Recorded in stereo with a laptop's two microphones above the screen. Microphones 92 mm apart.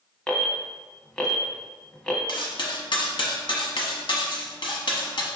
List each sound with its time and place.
0.3 s an alarm: 10° left (ahead or behind), 0.7 m
2.3 s cutlery clinking: 55° left (ahead or behind), 0.8 m